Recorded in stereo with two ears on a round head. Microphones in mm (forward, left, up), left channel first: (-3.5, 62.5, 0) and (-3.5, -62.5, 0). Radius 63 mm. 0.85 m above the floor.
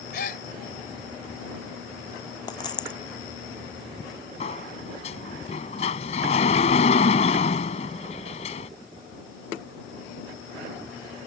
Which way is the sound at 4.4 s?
50° left (ahead or behind).